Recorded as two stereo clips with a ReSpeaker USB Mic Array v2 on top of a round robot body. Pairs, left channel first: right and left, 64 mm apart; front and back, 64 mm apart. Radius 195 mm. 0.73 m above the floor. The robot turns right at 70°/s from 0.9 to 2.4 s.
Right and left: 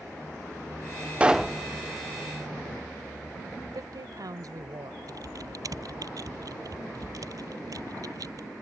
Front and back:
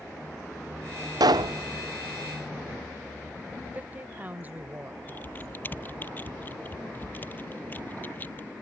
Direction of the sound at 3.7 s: 115° left.